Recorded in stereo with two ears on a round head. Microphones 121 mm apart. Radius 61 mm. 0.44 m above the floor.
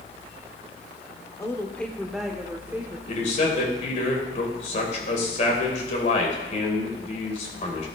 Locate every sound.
1.4 s a woman speaking: 20° left (ahead or behind), 0.8 m; by 3.0 s 15° right (ahead or behind), 1.3 m
3.1 s a man speaking: 55° left (ahead or behind), 2.5 m